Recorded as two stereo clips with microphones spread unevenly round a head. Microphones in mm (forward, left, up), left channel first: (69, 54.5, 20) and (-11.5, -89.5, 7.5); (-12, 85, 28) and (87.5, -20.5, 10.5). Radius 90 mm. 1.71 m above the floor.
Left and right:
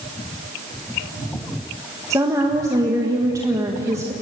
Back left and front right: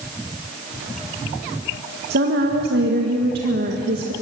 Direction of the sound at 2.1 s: 45° right.